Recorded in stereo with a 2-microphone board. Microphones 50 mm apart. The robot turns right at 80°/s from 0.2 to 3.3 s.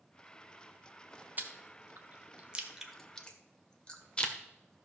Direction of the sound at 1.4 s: 35° right (ahead or behind).